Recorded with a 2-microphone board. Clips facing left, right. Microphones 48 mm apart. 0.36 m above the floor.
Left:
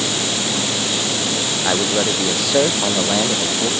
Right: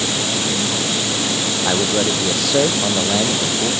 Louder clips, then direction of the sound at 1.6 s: Even; 5° left (ahead or behind).